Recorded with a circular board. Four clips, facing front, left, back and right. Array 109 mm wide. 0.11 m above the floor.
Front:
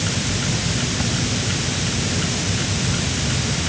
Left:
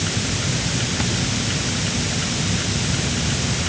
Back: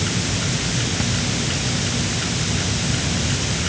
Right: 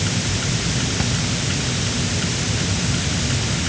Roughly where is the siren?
No siren in this recording.